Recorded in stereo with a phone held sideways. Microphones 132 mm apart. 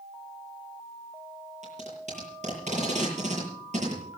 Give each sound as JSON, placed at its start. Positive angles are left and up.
{"t": 1.6, "sound": "tape being pulled", "side_deg": -65, "distance_m": 8.5}